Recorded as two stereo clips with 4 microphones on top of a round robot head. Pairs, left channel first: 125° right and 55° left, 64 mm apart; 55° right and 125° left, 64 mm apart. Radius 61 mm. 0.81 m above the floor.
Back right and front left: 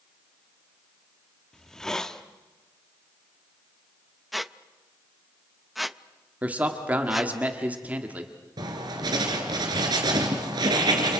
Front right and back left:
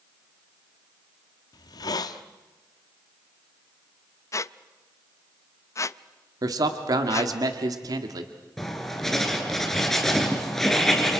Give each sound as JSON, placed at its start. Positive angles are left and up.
{"t": 1.5, "sound": "a hiss", "azimuth_deg": -45, "distance_m": 1.0}
{"t": 4.3, "sound": "a squeak", "azimuth_deg": -35, "distance_m": 0.5}
{"t": 6.4, "sound": "a man speaking", "azimuth_deg": 120, "distance_m": 1.7}
{"t": 8.6, "sound": "writing", "azimuth_deg": 35, "distance_m": 3.0}